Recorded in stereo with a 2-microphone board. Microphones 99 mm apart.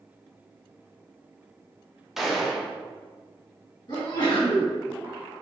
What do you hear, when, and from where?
2.2 s a gunshot: 5° right (ahead or behind), 0.5 m
3.9 s a sneeze: 45° left (ahead or behind), 1.6 m